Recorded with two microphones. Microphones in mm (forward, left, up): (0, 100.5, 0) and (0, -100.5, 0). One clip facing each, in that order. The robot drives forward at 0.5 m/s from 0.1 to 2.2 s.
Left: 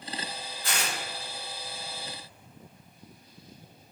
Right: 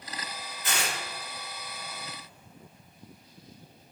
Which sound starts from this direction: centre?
Tearing paper, at 0.6 s.